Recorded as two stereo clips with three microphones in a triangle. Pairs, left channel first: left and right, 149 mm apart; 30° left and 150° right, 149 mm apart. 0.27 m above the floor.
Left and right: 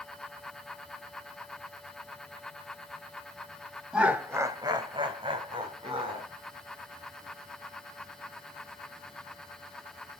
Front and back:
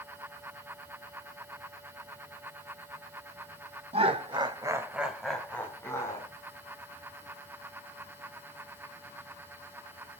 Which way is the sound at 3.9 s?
170° right.